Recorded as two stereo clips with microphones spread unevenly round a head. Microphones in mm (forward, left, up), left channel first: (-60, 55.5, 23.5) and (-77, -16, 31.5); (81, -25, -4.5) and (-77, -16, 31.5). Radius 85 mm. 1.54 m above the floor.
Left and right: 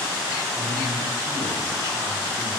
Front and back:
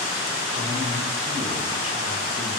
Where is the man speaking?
145° right, 5.5 m.